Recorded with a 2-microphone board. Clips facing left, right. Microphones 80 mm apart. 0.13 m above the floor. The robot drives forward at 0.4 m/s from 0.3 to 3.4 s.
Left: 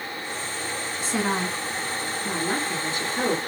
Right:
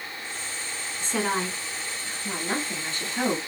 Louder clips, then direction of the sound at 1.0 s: Left 1 dB; 5° left (ahead or behind).